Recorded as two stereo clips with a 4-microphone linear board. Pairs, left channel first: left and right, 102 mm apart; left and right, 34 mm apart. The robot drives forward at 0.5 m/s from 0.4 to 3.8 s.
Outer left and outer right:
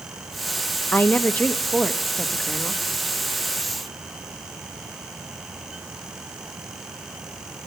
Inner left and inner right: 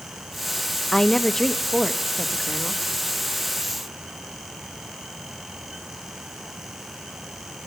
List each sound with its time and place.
0.9 s a woman speaking: 20° left (ahead or behind), 0.7 m; by 2.8 s 10° left (ahead or behind), 1.6 m